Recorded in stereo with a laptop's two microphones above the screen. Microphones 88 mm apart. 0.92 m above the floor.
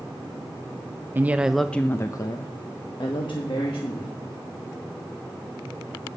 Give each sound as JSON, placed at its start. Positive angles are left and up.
{"t": 1.1, "sound": "a woman speaking", "side_deg": -25, "distance_m": 0.6}